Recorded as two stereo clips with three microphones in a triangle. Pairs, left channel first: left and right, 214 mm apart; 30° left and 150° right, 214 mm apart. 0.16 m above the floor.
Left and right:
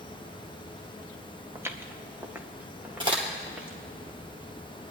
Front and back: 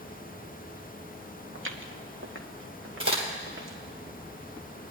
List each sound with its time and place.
1.6 s footsteps: 170° right, 1.4 m; by 3.8 s 175° right, 2.5 m
3.0 s a crack: 155° right, 2.5 m